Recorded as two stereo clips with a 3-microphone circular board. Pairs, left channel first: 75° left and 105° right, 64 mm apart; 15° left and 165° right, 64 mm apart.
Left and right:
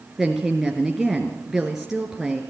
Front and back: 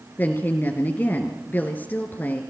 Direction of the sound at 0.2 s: 25° right.